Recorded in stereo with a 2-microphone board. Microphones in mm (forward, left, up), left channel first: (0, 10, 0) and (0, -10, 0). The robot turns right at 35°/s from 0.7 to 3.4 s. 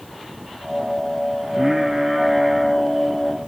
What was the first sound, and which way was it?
Singing, 55° right.